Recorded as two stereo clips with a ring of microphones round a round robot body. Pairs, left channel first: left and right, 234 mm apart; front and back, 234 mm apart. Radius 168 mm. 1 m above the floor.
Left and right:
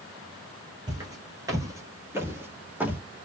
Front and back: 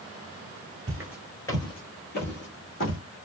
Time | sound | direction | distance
0.9 | footsteps | 135° right | 1.0 m